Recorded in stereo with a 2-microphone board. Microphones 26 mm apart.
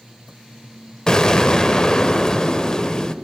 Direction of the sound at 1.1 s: 25° left (ahead or behind).